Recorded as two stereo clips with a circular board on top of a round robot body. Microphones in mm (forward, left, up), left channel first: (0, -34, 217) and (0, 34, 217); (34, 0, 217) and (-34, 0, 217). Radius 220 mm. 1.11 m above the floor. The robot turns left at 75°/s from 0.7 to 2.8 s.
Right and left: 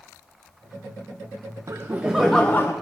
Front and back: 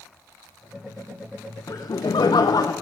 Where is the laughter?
45° left, 0.7 m; by 2.7 s 35° right, 0.7 m.